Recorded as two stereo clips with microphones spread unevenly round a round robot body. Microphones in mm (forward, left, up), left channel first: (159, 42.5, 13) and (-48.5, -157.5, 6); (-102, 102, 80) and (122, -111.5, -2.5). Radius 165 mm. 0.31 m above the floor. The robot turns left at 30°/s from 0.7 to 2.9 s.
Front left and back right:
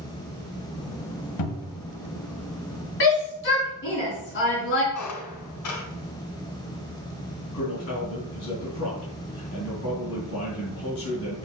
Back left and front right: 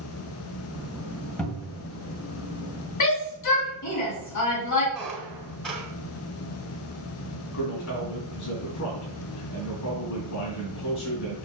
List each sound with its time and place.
1.4 s a cupboard door: 40° left, 2 m; by 1.9 s 25° left, 2 m
3.0 s a shout: 100° left, 3.5 m
4.9 s a squeak: 40° left, 2 m
7.5 s a man speaking: 90° left, 4.5 m